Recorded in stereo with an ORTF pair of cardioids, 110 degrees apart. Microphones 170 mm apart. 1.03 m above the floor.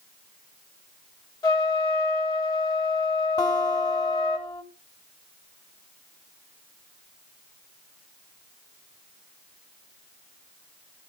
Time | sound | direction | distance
1.4 | a trumpet | 25° left | 3 m
3.4 | a guitar | 20° left | 3.5 m